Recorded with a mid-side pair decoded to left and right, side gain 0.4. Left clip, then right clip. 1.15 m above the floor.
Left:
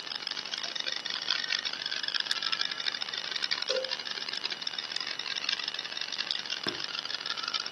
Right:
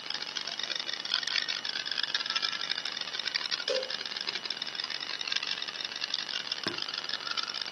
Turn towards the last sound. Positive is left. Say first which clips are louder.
# left 3 dB
turn(degrees=-10)